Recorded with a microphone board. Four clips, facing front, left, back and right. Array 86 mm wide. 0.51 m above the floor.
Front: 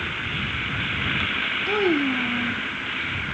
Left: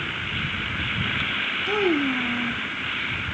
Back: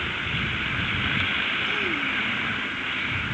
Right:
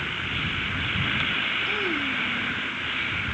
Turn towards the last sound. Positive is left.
turn(degrees=40)